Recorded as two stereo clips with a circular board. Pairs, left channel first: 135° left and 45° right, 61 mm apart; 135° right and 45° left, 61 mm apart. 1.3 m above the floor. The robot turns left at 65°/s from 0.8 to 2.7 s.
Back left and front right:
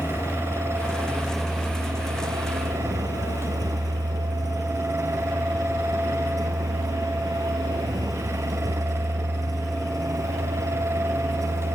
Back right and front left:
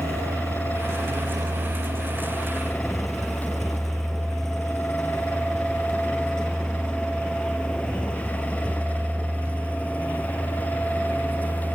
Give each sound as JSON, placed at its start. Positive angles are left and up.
{"t": 0.0, "sound": "a vehicle", "azimuth_deg": 85}